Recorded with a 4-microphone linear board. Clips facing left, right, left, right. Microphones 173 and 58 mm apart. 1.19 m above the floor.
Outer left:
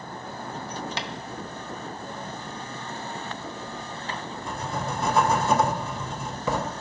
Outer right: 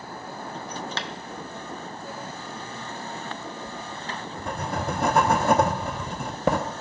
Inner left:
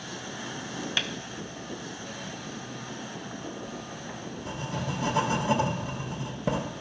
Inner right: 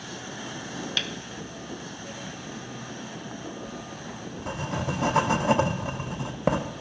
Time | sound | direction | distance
1.0 | tapping | 15° left (ahead or behind) | 0.6 m
3.7 | writing | 60° right (ahead or behind) | 0.8 m